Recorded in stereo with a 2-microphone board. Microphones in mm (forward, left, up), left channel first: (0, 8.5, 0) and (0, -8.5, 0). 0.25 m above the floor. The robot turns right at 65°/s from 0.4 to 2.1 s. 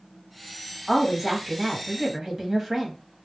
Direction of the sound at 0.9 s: 150° left.